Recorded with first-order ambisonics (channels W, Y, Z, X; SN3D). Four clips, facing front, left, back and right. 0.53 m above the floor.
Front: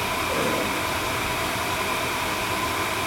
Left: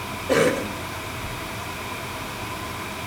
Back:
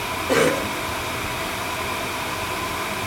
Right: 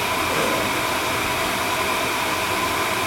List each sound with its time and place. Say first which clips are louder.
0.3 s a cough: left 6 dB, back 8 dB; 130° left, 2.5 m